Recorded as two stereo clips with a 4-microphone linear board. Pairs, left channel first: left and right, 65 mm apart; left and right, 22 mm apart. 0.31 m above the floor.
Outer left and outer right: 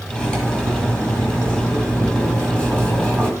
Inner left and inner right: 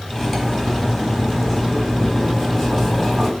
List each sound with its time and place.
0.1 s cutlery clinking: 15° left (ahead or behind), 1.2 m